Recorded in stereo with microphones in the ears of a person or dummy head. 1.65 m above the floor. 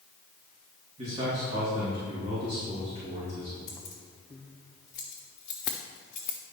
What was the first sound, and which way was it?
A man speaking, 35° right (ahead or behind).